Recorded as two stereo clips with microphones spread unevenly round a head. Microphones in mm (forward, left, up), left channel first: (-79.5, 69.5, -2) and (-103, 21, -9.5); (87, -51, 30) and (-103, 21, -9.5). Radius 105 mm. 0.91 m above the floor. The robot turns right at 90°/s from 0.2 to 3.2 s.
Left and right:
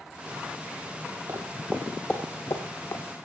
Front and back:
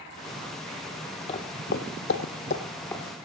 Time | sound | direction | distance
1.3 | footsteps | 65° right | 1.4 m